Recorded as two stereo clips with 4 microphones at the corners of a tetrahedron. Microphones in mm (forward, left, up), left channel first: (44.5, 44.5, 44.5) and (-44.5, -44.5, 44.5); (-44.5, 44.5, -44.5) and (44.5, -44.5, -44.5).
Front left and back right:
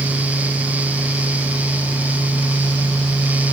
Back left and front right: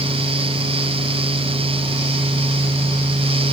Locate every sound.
Only background noise.